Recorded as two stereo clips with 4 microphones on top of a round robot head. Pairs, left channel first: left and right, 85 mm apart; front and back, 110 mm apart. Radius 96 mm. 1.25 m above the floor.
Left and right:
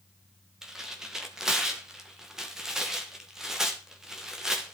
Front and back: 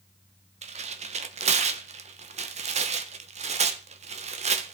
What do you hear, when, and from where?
0.6 s tearing paper: 175° right, 1.4 m